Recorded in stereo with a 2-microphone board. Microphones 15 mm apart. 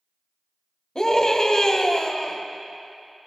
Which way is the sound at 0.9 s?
40° left (ahead or behind).